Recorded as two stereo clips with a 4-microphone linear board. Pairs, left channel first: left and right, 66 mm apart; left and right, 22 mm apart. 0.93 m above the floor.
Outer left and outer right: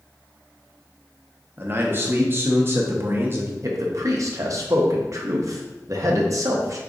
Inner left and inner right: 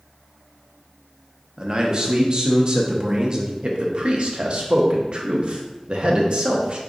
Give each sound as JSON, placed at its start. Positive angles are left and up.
{"t": 1.6, "sound": "a man speaking", "side_deg": -35, "distance_m": 0.9}
{"t": 3.6, "sound": "a man speaking", "side_deg": -50, "distance_m": 0.8}